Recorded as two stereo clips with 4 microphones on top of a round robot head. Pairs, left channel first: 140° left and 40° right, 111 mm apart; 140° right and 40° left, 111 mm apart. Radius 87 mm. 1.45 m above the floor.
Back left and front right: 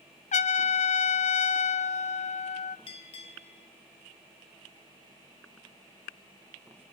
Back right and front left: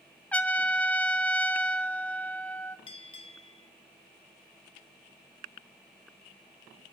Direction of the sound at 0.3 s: 145° left.